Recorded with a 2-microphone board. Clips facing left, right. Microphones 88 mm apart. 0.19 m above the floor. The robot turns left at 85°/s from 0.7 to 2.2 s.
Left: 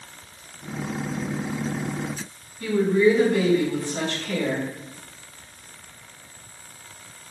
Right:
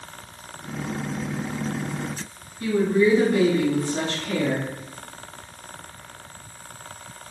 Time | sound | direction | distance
2.6 | a woman speaking | 15° right (ahead or behind) | 1.5 m